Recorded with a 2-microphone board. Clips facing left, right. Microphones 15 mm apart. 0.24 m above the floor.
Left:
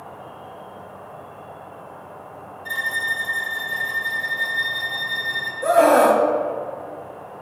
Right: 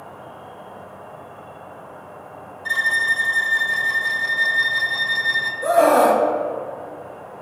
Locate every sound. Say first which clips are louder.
0.0 s an insect: even; 40° right (ahead or behind), 3 m
2.6 s a violin: right 5 dB; 45° right (ahead or behind), 0.8 m
5.6 s a scream: left 1 dB; centre (ahead or behind), 1.1 m